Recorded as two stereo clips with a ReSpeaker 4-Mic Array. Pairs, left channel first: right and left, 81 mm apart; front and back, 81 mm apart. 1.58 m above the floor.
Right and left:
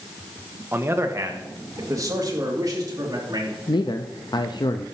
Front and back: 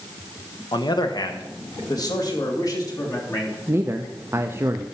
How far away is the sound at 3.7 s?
About 0.6 m.